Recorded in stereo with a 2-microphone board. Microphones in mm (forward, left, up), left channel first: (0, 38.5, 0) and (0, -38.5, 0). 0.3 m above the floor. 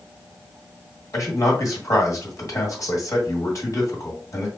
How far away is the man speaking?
About 2 m.